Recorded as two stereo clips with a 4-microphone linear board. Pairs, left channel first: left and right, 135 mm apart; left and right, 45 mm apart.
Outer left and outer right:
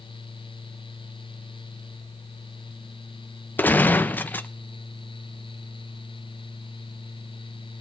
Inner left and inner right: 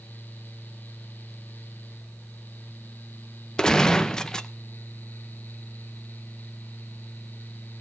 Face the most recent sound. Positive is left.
turn(degrees=15)  # may be behind; listen again after turning